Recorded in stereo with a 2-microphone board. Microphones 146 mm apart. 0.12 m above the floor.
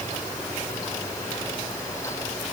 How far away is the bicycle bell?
No bicycle bell in this recording.